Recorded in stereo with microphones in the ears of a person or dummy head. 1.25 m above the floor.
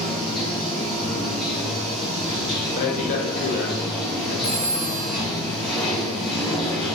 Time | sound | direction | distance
0.0 | running water | centre (ahead or behind) | 1.1 m
2.8 | a man speaking | 45° left (ahead or behind) | 1.3 m
4.4 | a phone ringing | 35° left (ahead or behind) | 0.5 m